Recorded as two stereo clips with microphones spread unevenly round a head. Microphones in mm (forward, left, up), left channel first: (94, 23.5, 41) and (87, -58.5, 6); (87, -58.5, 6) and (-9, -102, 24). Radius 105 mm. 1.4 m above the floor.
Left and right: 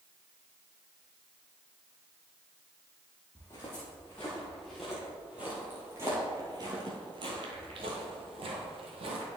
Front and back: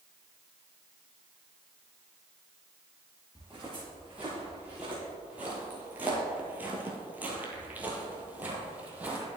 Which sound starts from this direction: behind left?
Footsteps, at 3.4 s.